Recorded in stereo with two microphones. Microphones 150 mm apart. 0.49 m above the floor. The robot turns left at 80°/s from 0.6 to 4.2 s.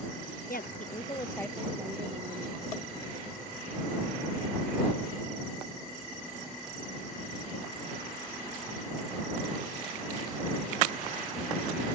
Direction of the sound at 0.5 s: 75° left.